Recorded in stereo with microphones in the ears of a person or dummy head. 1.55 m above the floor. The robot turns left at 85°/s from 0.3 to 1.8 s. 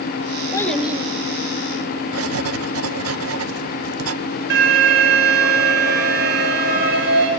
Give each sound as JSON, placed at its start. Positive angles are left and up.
{"t": 0.5, "sound": "a child speaking", "side_deg": 25, "distance_m": 2.5}
{"t": 2.1, "sound": "writing", "side_deg": -85, "distance_m": 1.0}
{"t": 4.5, "sound": "an alarm", "side_deg": -65, "distance_m": 9.0}